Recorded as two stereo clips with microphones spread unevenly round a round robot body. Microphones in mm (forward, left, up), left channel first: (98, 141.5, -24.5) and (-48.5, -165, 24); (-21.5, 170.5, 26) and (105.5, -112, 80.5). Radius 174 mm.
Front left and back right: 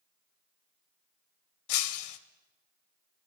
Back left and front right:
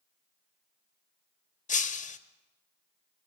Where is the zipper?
I don't hear a zipper.